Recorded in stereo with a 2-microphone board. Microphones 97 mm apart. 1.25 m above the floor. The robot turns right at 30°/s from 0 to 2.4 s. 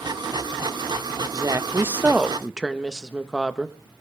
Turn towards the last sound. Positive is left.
turn(degrees=-5)